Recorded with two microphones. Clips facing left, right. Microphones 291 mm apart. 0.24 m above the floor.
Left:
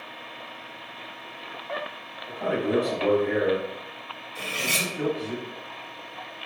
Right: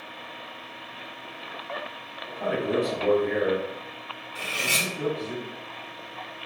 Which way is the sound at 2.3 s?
Centre (ahead or behind).